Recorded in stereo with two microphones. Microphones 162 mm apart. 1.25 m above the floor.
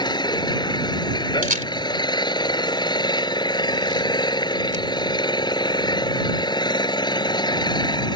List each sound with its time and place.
0.0 s an engine running: 25° left (ahead or behind)
1.4 s a camera shutter: 55° right (ahead or behind)